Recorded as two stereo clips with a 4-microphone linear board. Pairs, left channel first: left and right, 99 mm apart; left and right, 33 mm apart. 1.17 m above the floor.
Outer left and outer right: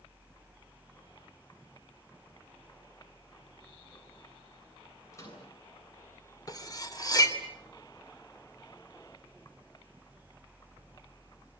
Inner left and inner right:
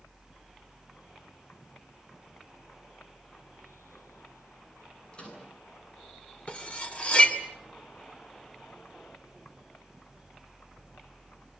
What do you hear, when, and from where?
5.1 s a microwave: 30° left (ahead or behind), 9 m
6.5 s cutlery clinking: 40° left (ahead or behind), 2 m